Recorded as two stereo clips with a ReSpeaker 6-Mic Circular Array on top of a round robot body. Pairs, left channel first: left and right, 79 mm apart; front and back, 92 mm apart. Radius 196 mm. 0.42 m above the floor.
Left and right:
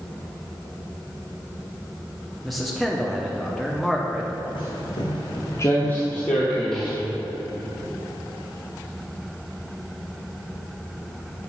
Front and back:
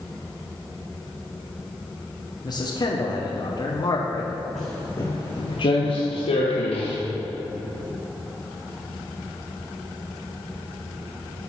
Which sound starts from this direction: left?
Footsteps, at 4.5 s.